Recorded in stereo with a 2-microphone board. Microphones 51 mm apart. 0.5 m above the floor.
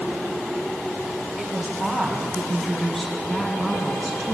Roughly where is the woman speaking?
Centre.